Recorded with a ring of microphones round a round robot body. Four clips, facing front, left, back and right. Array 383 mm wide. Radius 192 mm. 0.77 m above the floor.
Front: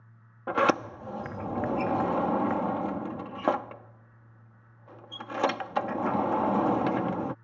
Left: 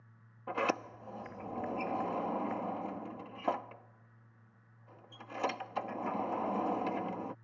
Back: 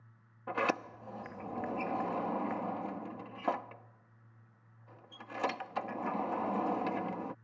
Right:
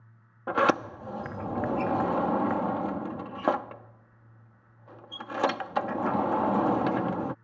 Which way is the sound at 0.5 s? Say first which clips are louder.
Right 10 dB, front 9 dB; 50° right.